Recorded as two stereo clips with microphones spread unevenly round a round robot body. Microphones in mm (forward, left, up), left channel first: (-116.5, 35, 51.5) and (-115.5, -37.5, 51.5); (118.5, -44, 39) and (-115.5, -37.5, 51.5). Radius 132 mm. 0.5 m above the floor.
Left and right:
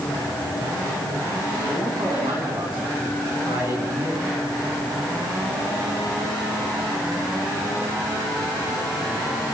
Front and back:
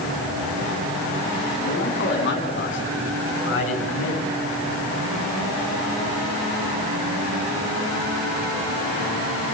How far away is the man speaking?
About 5.5 m.